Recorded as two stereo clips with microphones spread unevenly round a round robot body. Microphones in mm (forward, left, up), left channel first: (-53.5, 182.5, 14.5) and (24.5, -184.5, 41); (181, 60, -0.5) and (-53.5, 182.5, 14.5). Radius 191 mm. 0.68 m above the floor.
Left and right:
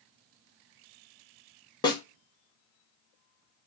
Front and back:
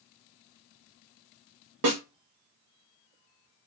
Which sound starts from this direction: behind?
A snare drum, at 1.8 s.